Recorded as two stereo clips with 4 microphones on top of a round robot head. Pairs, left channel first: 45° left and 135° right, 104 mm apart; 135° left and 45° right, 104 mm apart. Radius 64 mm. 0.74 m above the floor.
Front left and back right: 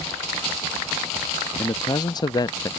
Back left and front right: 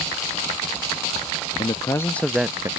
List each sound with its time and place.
1.6 s a man speaking: 95° left; by 2.7 s 5° left